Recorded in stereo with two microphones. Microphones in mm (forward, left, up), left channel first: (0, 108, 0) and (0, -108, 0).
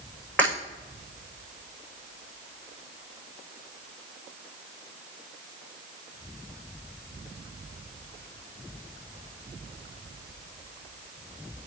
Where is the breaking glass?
10° left (ahead or behind), 6 m.